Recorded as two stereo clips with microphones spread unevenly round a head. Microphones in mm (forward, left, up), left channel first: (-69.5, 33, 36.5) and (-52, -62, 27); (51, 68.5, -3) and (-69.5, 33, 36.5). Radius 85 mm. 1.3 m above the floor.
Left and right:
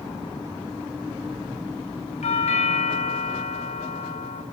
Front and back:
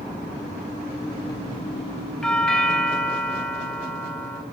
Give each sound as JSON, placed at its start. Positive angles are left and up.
{"t": 2.2, "sound": "a doorbell", "azimuth_deg": 100, "distance_m": 2.5}